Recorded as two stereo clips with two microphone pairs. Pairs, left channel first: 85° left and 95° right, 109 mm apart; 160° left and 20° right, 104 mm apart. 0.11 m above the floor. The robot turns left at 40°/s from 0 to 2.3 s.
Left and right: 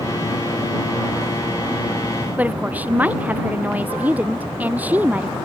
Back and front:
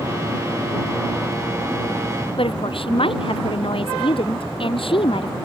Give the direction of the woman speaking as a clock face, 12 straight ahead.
6 o'clock.